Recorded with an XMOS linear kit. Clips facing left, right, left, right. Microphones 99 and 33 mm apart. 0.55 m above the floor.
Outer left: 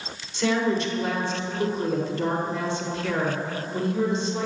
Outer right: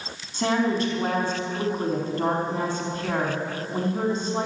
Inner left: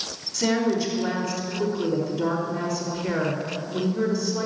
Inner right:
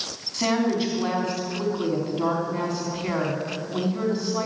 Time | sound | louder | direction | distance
0.3 | a woman speaking | even, even | 40° right (ahead or behind) | 4 m